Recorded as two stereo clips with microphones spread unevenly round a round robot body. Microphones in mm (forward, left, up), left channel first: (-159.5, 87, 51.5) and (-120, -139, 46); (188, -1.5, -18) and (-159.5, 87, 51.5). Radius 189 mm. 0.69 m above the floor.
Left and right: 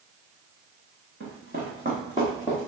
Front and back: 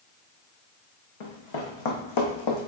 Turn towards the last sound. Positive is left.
turn(degrees=15)